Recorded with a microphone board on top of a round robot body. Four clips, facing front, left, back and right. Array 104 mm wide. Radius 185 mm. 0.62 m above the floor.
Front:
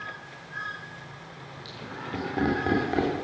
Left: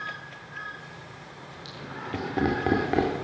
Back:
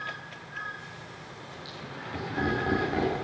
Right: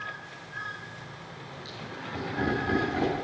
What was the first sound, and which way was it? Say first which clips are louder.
Laughter: left 4 dB, front 4 dB; 60° left.